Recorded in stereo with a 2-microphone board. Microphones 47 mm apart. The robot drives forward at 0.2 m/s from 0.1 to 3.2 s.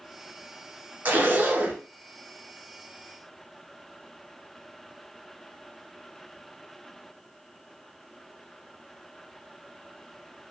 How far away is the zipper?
About 0.8 m.